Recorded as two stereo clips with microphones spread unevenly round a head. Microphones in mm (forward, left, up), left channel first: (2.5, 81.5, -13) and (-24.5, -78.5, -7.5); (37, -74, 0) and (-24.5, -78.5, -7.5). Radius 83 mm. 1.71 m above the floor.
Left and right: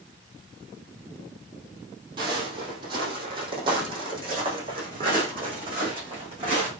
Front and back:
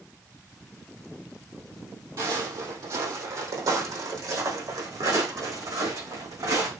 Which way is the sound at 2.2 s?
155° right.